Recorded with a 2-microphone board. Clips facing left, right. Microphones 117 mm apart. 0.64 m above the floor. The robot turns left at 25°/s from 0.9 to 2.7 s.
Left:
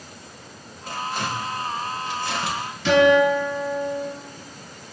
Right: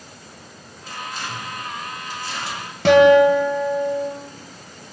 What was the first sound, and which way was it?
Tearing paper, 60° left (ahead or behind).